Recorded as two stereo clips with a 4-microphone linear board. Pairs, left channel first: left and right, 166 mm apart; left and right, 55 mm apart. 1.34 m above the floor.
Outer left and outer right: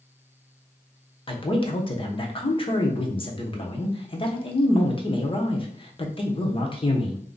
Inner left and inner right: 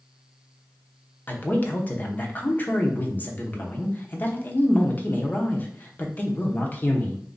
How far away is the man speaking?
About 0.9 m.